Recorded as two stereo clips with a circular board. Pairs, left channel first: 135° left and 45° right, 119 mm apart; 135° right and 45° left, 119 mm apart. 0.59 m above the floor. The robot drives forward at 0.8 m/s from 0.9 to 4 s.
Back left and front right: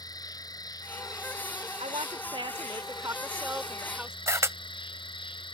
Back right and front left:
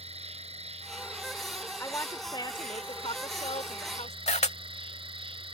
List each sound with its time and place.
0.0 s an insect: 75° left; by 5.5 s 90° left
1.8 s a woman speaking: 65° right; by 4.2 s 125° right
4.3 s a camera shutter: 110° right